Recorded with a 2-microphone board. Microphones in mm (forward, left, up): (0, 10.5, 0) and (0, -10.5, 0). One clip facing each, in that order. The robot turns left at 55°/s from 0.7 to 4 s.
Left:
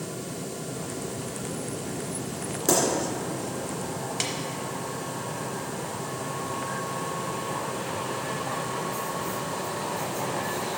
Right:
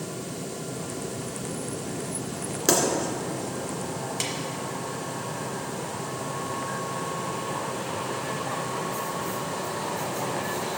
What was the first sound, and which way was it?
A pop, 45° right (ahead or behind).